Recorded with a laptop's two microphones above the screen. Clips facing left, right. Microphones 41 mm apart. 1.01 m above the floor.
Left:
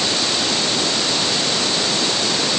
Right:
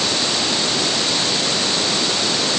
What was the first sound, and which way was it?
Only background noise.